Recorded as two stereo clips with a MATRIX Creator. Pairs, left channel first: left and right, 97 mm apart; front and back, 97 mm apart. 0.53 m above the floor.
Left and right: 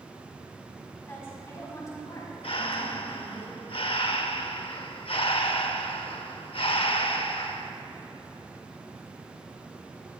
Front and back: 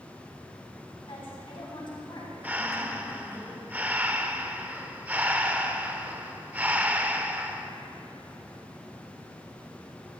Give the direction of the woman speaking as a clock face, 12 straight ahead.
11 o'clock.